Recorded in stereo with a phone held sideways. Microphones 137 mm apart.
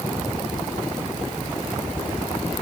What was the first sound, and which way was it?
Only background noise.